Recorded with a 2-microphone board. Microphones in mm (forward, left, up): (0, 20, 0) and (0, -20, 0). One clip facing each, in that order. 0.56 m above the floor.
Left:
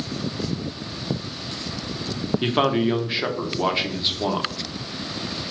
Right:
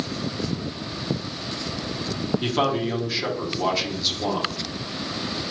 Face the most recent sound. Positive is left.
turn(degrees=25)  # may be behind; listen again after turning